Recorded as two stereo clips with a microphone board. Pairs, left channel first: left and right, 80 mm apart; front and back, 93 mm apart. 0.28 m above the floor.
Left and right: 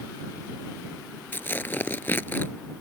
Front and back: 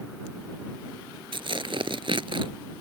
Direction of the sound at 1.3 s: 155° left.